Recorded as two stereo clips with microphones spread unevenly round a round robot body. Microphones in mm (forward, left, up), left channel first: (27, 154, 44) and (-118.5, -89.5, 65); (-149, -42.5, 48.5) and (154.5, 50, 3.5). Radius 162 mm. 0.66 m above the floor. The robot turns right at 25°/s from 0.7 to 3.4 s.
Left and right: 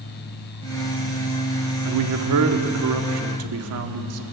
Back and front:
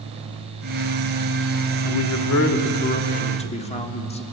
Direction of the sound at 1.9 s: 130° right.